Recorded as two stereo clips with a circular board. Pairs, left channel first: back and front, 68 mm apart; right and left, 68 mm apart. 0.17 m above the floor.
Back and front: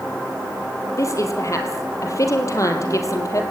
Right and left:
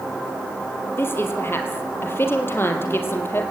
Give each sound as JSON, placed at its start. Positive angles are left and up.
{"t": 1.0, "sound": "a woman speaking", "azimuth_deg": -145, "distance_m": 4.5}